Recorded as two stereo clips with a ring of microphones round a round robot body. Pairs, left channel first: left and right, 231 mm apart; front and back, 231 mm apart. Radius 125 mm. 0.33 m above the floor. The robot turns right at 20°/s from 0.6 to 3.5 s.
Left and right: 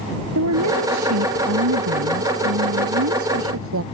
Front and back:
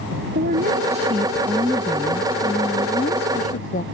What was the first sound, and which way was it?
A woman speaking, 120° right.